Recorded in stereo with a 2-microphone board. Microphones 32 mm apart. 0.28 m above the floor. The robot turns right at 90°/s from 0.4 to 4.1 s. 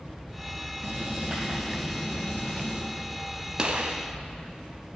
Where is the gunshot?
150° right, 0.7 m; by 4.0 s 115° right, 0.7 m.